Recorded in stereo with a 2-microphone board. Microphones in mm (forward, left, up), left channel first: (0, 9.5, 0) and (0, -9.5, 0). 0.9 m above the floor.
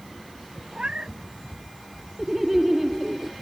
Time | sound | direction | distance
0.7 | a cat meowing | 80° right | ?
2.2 | laughter | 15° right (ahead or behind) | ?